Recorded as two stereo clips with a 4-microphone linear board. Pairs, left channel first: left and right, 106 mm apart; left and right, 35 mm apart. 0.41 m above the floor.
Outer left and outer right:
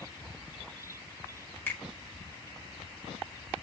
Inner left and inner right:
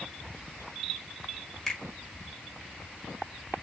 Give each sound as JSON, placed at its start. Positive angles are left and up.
{"t": 1.7, "sound": "a finger snap", "side_deg": 20, "distance_m": 1.4}